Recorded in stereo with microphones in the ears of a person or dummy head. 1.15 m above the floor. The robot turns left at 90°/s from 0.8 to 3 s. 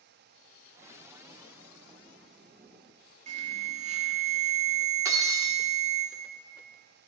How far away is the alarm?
About 1.6 m.